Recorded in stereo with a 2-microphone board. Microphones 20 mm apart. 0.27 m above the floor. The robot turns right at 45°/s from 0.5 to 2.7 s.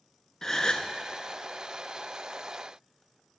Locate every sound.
0.4 s a gasp: 35° left (ahead or behind), 0.5 m; by 0.9 s 50° left (ahead or behind), 0.5 m